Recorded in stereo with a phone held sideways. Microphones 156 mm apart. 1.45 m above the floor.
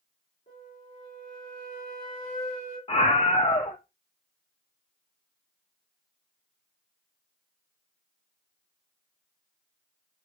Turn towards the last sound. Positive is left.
turn(degrees=40)  # may be behind; listen again after turning